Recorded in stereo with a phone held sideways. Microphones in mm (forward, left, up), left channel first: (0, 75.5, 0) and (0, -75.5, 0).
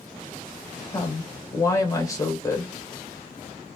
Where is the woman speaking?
20° left (ahead or behind), 0.9 m.